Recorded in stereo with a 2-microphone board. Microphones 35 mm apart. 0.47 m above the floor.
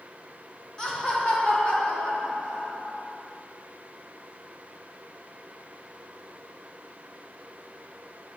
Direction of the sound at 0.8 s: 25° left (ahead or behind).